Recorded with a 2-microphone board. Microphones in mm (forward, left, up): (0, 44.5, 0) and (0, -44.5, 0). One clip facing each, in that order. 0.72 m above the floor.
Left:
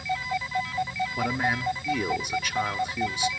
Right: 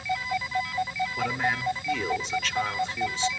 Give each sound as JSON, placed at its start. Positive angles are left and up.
{"t": 1.2, "sound": "a man speaking", "side_deg": 15, "distance_m": 1.6}